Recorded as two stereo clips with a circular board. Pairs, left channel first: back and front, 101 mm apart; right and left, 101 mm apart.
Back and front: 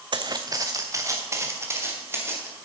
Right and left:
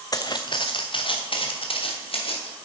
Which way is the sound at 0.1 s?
40° right.